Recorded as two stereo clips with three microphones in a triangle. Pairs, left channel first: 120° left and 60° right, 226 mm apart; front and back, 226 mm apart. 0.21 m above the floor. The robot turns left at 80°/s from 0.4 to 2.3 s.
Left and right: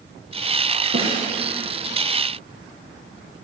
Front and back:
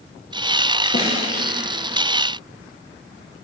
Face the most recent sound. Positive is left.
turn(degrees=-140)